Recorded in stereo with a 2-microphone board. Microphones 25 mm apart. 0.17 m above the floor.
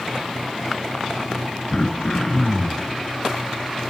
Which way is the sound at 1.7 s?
30° left (ahead or behind).